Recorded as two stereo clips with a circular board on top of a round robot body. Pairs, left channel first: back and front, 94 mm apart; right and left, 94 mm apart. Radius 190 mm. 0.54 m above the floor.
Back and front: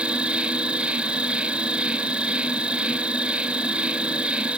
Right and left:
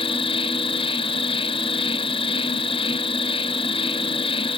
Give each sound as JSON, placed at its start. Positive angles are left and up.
{"t": 0.0, "sound": "an insect", "azimuth_deg": -80}